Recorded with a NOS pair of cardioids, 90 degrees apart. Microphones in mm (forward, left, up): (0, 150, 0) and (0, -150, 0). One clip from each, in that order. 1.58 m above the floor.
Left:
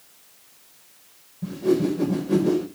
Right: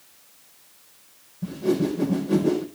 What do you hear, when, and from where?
1.4 s a whoosh: 5° right, 5 m